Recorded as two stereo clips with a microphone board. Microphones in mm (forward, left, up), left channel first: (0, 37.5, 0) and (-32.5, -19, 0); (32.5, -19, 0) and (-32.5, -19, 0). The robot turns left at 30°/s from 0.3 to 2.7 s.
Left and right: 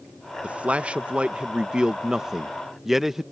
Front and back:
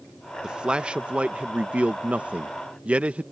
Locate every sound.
0.4 s a man speaking: 130° right; by 3.2 s 165° left